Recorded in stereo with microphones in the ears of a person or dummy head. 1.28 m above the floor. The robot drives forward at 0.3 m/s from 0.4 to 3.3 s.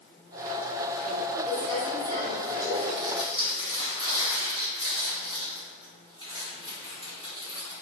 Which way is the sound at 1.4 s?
35° right (ahead or behind).